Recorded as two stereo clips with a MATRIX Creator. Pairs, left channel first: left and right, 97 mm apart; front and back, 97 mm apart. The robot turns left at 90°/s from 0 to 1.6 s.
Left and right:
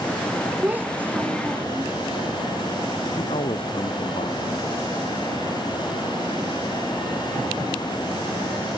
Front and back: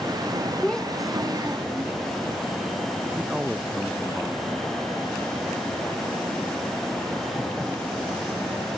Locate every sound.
0.6 s a child speaking: 55° right; by 1.9 s 145° right
3.2 s a man speaking: 90° left